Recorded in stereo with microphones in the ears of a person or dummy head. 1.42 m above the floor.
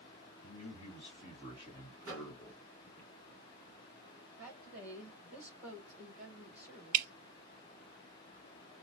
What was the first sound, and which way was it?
A man speaking, 30° left (ahead or behind).